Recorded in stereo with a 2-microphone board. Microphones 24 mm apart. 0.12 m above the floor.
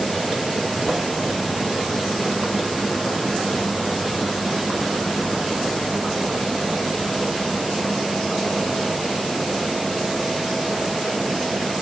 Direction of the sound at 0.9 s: 15° right (ahead or behind).